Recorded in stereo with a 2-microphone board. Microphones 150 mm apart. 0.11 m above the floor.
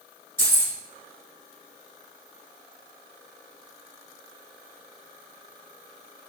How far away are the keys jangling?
About 1.3 m.